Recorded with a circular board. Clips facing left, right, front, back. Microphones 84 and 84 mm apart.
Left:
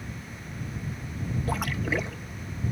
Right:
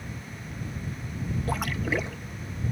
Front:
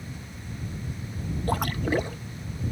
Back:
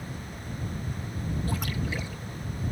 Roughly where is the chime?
I don't hear a chime.